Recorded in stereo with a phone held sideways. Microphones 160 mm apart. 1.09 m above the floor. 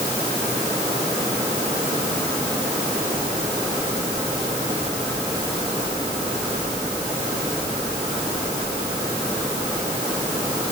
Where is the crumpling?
No crumpling in this recording.